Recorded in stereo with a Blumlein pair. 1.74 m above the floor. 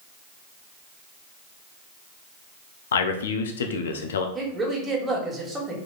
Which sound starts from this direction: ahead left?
A man speaking, at 2.9 s.